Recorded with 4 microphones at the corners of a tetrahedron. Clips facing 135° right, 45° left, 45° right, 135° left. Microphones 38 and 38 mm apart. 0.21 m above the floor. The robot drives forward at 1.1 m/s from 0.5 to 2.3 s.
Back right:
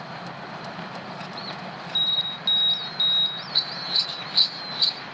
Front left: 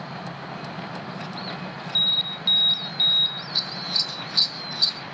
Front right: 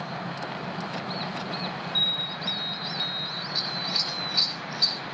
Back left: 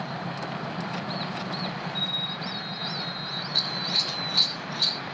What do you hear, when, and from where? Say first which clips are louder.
1.9 s an alarm: front left 2 dB, front right 6 dB; 25° right, 4 m
3.5 s scissors: back right 3 dB, back left 3 dB; 170° left, 1.7 m